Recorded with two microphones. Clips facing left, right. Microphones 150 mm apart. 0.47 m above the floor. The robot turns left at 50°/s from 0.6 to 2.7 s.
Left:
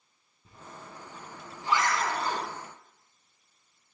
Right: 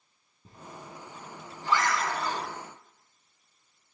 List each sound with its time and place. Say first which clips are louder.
0.5 s a zipper: right 2 dB; 40° right (ahead or behind), 4.5 m; by 2.5 s 55° left (ahead or behind), 4.5 m